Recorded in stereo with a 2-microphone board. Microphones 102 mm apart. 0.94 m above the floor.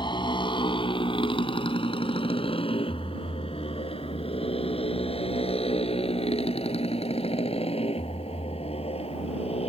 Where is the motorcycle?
50° left (ahead or behind); by 9.7 s 80° left.